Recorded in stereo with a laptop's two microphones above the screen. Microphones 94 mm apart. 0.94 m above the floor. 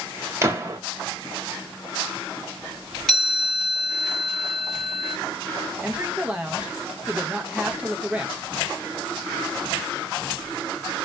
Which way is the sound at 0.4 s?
25° right (ahead or behind).